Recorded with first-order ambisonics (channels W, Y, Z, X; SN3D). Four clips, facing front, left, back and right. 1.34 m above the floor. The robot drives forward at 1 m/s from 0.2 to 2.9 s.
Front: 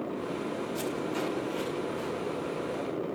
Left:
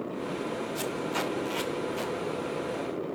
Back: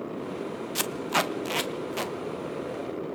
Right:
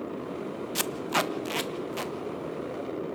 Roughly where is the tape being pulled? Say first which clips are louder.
Right 6 dB, back 8 dB; behind right.